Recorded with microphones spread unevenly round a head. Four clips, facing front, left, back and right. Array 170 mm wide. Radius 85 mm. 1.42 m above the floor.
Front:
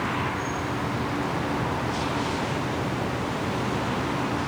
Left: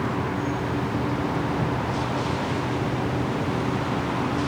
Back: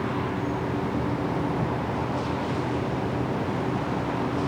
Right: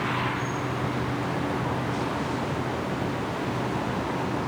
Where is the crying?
No crying in this recording.